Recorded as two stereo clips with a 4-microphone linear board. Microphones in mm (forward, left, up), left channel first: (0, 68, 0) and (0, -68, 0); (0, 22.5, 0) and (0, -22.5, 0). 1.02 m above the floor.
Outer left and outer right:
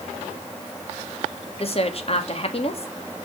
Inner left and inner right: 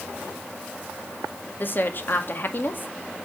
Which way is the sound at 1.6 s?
50° left (ahead or behind).